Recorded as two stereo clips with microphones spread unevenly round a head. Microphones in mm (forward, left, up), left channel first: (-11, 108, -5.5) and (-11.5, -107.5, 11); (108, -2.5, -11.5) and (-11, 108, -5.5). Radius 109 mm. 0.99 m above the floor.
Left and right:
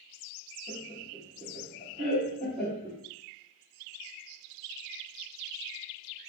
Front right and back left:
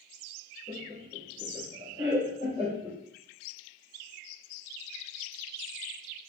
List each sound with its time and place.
0.7 s laughter: 155° right, 1.5 m